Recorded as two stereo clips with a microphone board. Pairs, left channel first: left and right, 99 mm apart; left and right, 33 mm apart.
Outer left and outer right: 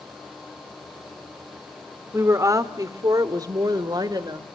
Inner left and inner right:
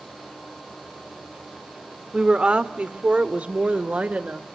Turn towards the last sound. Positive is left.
turn(degrees=-45)  # may be behind; listen again after turning